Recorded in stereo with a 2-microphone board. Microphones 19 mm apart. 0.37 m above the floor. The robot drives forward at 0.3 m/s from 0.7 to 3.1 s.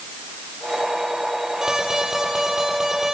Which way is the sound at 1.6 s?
45° right (ahead or behind).